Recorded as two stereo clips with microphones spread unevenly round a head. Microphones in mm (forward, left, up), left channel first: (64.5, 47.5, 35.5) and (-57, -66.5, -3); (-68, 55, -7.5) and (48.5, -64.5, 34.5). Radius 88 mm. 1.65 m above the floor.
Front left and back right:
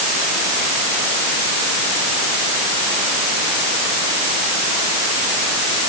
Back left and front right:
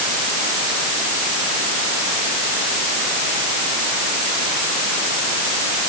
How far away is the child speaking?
No child speaking in this recording.